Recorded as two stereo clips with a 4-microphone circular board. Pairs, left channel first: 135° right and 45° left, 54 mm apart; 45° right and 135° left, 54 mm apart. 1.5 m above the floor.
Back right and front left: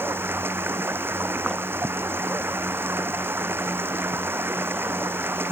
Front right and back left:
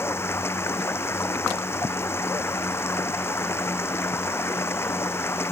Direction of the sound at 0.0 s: 5° right.